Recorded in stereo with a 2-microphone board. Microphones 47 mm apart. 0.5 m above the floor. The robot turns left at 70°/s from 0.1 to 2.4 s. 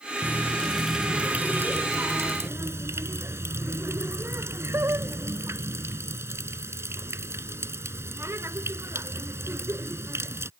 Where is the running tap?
45° left; by 10.5 s 110° right.